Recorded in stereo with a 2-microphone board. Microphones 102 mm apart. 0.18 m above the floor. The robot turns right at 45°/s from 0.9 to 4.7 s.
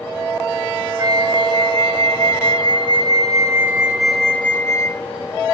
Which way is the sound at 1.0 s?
140° right.